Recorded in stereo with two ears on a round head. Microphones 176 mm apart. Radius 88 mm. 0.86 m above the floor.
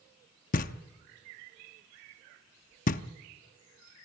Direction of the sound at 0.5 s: 45° left (ahead or behind).